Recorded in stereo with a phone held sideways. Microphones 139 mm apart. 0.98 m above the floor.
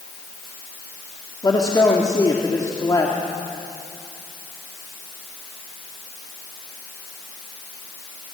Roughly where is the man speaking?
Left.